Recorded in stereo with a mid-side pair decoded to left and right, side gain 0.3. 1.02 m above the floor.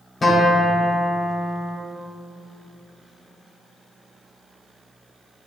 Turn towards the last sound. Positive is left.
turn(degrees=45)